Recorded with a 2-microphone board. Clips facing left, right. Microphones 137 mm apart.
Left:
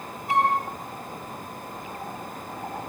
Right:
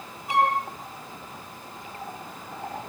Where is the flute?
Centre (ahead or behind), 9 m.